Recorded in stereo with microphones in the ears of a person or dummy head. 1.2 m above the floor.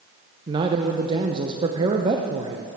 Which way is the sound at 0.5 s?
25° right (ahead or behind).